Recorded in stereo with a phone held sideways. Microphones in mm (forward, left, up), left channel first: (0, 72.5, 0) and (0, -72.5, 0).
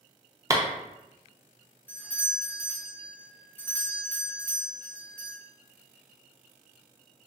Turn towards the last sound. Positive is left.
turn(degrees=15)  # may be behind; listen again after turning